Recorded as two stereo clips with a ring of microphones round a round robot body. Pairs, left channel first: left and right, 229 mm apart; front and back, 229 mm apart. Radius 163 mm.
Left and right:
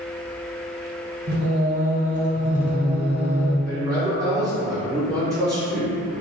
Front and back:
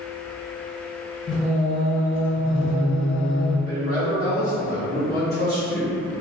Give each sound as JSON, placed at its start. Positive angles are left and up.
{"t": 1.3, "sound": "singing", "azimuth_deg": -60, "distance_m": 1.5}
{"t": 3.6, "sound": "a man speaking", "azimuth_deg": -45, "distance_m": 0.8}